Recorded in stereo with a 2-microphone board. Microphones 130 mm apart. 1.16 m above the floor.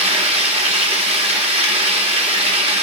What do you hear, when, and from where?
0.0 s running water: 50° right (ahead or behind), 2 m